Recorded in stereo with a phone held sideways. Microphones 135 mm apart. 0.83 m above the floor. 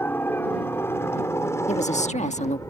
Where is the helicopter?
15° left (ahead or behind); by 2.7 s 25° left (ahead or behind).